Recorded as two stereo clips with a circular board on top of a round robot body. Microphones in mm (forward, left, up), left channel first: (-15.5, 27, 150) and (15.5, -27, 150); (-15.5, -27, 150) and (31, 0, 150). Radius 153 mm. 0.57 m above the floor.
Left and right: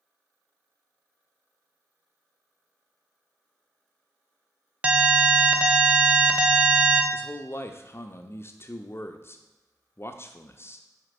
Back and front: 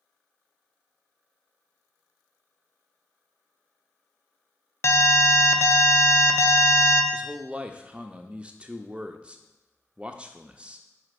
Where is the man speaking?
90° left, 0.7 m.